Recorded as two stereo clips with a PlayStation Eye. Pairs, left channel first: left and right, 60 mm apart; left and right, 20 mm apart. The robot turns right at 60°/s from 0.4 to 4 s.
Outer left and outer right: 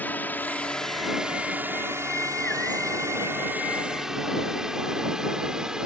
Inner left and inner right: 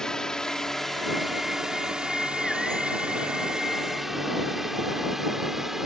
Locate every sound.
0.0 s a drone: 30° left (ahead or behind); by 5.9 s 10° right (ahead or behind)